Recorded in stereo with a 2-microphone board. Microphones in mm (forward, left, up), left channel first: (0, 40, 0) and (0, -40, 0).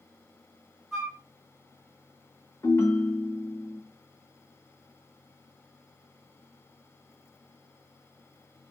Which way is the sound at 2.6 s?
40° left (ahead or behind).